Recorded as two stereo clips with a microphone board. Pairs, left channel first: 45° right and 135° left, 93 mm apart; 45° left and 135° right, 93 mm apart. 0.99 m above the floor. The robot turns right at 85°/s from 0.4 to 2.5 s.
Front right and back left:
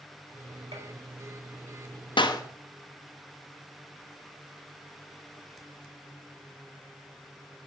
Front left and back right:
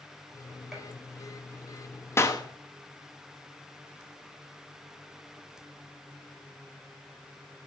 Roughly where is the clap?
Ahead.